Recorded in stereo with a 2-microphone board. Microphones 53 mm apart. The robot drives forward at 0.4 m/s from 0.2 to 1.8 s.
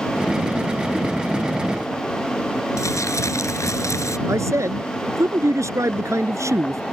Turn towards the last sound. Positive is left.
turn(degrees=-75)  # may be behind; listen again after turning